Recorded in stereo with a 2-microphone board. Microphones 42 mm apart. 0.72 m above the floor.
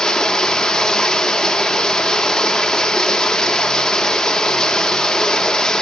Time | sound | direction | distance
0.0 | running water | 15° left (ahead or behind) | 1.5 m